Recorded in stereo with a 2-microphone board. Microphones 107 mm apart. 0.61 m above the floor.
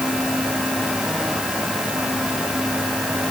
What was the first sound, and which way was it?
Only background noise.